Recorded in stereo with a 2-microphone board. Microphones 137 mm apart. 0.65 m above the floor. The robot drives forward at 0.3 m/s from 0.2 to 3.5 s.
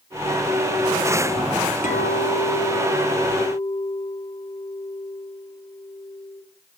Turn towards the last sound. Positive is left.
turn(degrees=65)  # may be behind; listen again after turning